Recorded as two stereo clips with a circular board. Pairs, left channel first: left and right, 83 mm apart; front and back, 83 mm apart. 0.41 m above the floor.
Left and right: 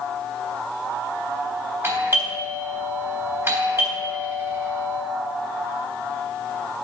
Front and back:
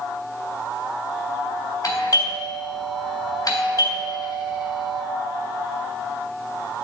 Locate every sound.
1.8 s a doorbell: 35° right, 3.5 m